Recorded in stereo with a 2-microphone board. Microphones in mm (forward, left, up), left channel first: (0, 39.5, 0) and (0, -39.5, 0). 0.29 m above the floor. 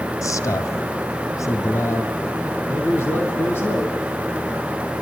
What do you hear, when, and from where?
0.2 s a man speaking: 45° left (ahead or behind), 2 m; by 4.0 s 30° left (ahead or behind), 4.5 m